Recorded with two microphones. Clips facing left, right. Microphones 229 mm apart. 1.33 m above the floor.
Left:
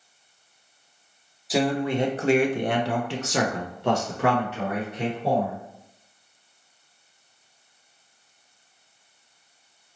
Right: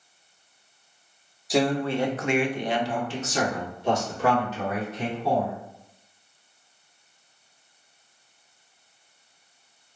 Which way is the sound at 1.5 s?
Centre (ahead or behind).